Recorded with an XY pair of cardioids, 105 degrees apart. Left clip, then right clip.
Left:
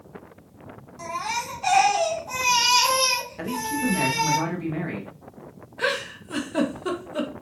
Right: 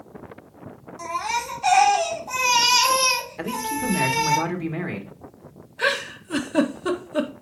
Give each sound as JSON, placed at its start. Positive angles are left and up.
{"t": 1.0, "sound": "a baby crying", "azimuth_deg": -10, "distance_m": 3.5}
{"t": 3.4, "sound": "a man speaking", "azimuth_deg": -25, "distance_m": 2.0}
{"t": 5.8, "sound": "a giggle", "azimuth_deg": -20, "distance_m": 1.4}